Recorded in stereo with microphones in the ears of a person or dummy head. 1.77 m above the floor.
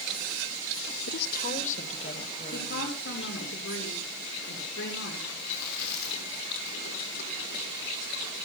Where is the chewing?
60° left (ahead or behind), 5.5 m.